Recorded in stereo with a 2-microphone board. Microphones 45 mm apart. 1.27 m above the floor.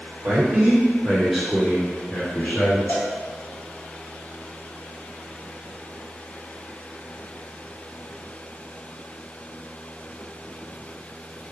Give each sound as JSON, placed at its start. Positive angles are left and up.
{"t": 0.2, "sound": "a man speaking", "side_deg": -50, "distance_m": 1.2}
{"t": 2.9, "sound": "a cowbell", "side_deg": 55, "distance_m": 0.8}